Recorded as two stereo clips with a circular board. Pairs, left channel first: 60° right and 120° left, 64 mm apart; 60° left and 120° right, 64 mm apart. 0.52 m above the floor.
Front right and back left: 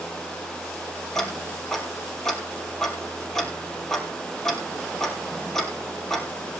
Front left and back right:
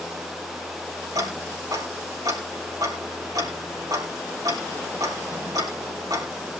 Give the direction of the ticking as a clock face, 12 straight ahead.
5 o'clock.